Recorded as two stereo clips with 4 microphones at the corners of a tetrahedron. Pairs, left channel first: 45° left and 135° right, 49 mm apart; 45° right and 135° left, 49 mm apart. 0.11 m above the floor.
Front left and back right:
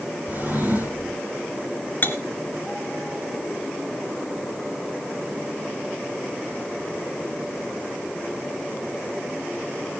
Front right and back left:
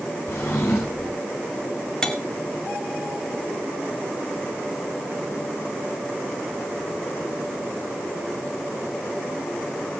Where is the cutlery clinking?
25° left, 1.2 m.